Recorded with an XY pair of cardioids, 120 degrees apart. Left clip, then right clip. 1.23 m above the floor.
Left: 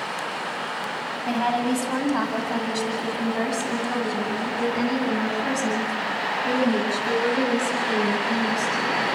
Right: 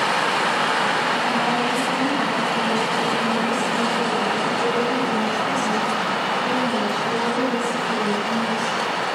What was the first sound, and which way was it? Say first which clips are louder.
A woman speaking: right 3 dB; 35° left.